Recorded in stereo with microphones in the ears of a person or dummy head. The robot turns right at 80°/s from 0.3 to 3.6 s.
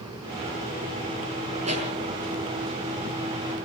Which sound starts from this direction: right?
A pop, at 1.6 s.